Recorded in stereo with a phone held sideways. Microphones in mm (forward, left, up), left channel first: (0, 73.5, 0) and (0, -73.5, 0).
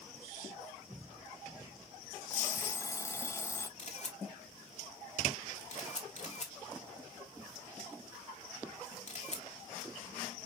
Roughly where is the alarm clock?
Centre.